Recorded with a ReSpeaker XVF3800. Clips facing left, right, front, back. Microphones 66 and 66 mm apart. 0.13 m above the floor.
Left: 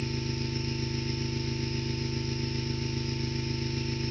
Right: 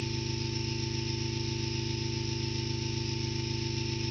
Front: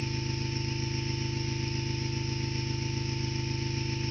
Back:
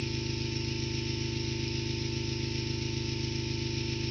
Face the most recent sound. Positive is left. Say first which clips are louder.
# left 2 dB, even
turn(degrees=55)